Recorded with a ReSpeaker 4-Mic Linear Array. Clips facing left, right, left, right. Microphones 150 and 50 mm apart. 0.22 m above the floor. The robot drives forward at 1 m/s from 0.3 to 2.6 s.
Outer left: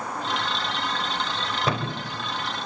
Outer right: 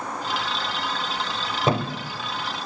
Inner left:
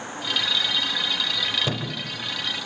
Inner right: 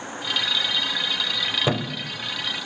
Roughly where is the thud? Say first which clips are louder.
Outer right 6 dB, inner right 4 dB; right.